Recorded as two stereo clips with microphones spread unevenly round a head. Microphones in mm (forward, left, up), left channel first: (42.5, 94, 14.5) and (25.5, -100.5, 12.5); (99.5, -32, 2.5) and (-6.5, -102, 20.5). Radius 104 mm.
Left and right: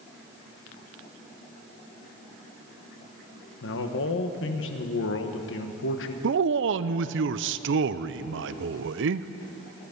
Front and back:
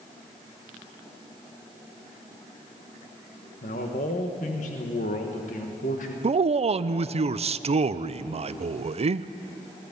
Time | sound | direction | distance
3.6 | a man speaking | 70° left | 1.4 m
6.2 | a man speaking | 110° right | 0.5 m